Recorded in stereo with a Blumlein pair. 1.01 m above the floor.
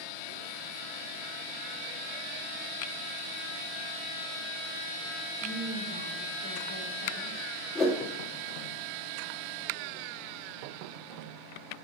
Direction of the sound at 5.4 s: 65° left.